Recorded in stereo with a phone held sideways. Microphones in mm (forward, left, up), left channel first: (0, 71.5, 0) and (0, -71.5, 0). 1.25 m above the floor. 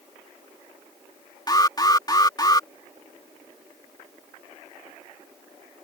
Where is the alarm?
30° left (ahead or behind).